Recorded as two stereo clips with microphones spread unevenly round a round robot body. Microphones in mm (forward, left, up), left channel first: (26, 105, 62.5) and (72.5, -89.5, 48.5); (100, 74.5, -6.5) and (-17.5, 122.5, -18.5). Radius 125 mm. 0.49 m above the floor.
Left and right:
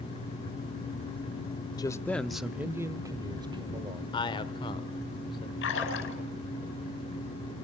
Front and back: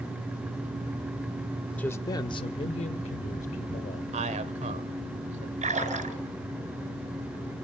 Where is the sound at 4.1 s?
170° left, 1.5 m.